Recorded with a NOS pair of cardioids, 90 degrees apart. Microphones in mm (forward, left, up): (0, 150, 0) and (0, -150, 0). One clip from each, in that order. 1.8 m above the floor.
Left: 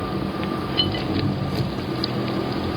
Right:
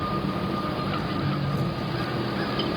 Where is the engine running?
70° left, 4 m.